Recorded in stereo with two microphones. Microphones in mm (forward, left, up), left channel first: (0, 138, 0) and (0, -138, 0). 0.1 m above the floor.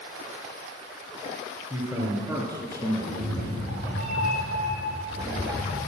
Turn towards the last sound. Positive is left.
turn(degrees=70)  # may be behind; listen again after turning